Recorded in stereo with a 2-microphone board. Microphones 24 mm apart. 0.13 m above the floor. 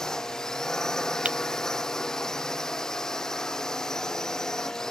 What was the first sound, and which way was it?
A drone, 25° left (ahead or behind).